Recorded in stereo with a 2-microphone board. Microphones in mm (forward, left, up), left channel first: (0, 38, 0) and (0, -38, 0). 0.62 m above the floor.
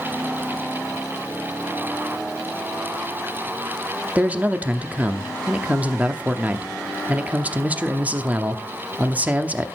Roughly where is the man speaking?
Centre.